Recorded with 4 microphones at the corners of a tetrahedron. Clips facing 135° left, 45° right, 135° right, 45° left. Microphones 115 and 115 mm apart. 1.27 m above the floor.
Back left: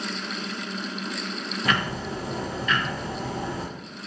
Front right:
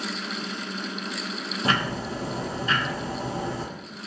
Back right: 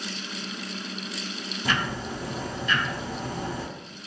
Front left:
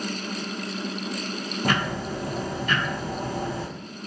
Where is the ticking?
15° left, 0.5 m.